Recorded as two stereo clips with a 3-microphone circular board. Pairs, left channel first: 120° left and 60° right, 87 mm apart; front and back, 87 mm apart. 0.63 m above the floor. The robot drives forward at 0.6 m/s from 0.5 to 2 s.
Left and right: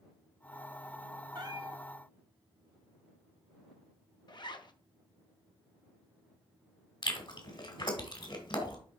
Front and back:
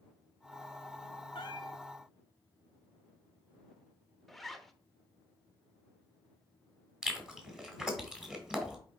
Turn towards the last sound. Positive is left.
turn(degrees=95)